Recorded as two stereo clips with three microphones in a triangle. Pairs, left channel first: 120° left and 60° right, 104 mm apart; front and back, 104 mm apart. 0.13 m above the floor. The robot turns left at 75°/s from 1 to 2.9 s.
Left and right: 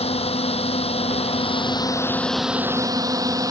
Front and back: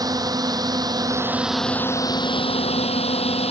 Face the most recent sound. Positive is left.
turn(degrees=-5)